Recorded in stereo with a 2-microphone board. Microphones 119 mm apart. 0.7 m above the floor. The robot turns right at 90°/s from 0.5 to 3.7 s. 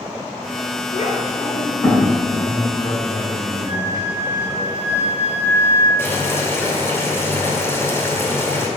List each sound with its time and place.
0.9 s a child speaking: 80° left, 2 m; by 2.1 s 5° right (ahead or behind), 2 m
2.3 s a man speaking: 55° left, 1.4 m; by 4.7 s straight behind, 1.4 m
3.7 s a flute: 25° right (ahead or behind), 2 m; by 5.9 s 20° right (ahead or behind), 2 m
6.0 s boiling: 20° left (ahead or behind), 2 m